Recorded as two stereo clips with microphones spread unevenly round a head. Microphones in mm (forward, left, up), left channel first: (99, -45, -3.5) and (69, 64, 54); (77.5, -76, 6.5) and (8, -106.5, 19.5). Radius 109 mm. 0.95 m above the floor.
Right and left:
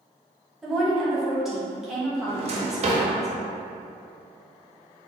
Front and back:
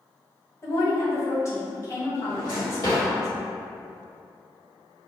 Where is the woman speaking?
5° right, 1.3 m.